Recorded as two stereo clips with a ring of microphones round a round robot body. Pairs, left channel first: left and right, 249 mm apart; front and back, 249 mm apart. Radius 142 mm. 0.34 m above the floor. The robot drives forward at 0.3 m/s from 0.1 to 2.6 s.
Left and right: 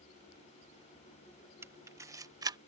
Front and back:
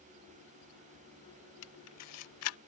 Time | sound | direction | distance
1.6 | a camera shutter | 10° right | ?